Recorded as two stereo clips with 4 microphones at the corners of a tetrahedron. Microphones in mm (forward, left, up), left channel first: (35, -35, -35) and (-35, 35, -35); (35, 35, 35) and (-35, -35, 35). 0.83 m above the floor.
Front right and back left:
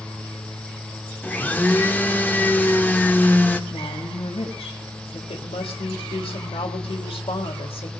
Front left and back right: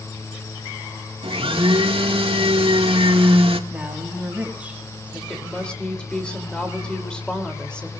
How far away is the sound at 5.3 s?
About 3 m.